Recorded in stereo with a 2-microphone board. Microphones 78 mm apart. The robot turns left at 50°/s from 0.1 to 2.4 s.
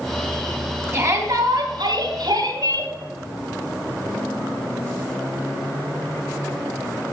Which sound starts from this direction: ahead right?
A shout, at 0.9 s.